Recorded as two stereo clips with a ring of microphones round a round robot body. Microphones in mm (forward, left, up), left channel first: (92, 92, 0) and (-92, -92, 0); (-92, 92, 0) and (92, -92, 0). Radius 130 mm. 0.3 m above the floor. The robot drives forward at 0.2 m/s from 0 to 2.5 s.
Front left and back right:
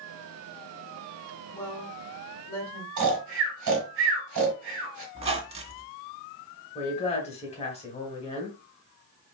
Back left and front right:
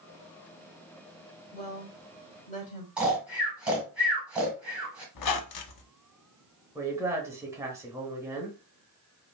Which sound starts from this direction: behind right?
Snoring, at 3.0 s.